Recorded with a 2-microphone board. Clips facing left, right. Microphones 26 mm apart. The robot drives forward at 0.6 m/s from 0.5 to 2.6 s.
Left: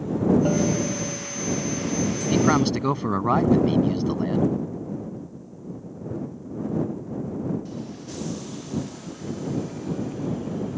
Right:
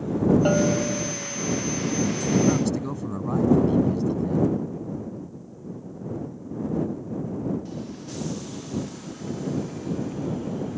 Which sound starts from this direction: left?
A man speaking, at 2.3 s.